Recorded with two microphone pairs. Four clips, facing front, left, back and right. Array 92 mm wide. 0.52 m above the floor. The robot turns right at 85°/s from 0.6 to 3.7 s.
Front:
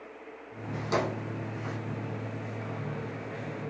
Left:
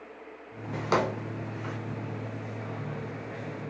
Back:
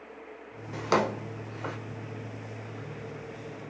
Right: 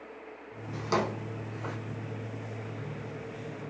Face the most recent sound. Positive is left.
turn(degrees=15)